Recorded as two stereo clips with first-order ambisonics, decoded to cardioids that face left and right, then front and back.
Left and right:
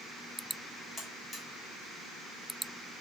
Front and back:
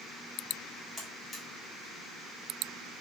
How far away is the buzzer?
About 0.8 m.